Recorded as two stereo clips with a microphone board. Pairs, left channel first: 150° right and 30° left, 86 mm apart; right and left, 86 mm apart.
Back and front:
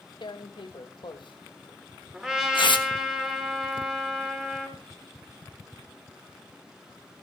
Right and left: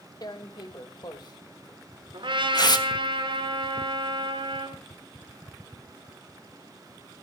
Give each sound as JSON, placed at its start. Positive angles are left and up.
{"t": 0.2, "sound": "tearing paper", "azimuth_deg": -125, "distance_m": 1.3}
{"t": 2.1, "sound": "a trumpet", "azimuth_deg": 115, "distance_m": 3.5}